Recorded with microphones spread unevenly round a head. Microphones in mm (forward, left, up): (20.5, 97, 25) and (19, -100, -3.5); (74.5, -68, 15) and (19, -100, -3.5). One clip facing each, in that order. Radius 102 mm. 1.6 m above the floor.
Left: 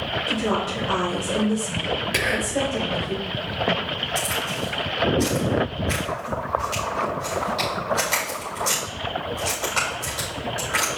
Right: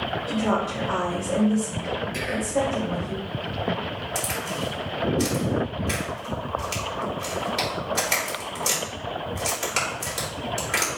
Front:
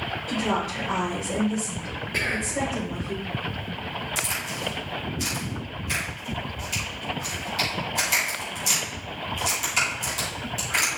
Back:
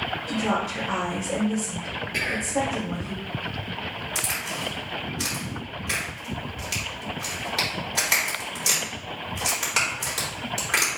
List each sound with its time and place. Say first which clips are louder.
0.3 s a woman speaking: even, even; 170° left, 3.5 m
2.1 s whispering: right 1 dB, back 1 dB; 110° left, 0.8 m
4.2 s a crack: left 2 dB, even; 150° right, 3.5 m